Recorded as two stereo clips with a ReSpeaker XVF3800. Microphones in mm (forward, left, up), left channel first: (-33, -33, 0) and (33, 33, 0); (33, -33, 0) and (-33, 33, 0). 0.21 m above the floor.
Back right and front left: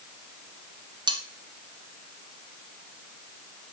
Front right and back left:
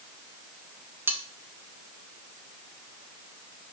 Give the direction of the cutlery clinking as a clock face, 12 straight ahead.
10 o'clock.